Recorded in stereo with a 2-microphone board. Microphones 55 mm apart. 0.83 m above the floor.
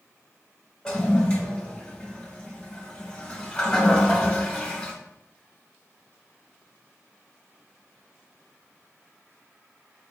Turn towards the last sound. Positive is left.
turn(degrees=15)  # may be behind; listen again after turning